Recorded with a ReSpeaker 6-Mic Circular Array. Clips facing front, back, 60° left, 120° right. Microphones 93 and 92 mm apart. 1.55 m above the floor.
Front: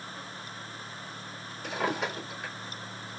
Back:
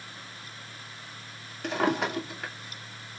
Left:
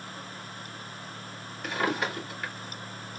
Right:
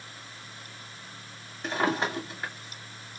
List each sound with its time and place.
1.6 s a drawer: straight behind, 2 m